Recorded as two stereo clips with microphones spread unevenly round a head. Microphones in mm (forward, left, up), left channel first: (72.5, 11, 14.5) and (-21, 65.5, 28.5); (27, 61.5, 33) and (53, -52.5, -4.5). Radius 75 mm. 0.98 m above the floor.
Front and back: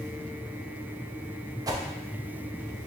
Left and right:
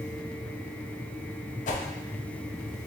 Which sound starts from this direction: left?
A whoosh, at 1.7 s.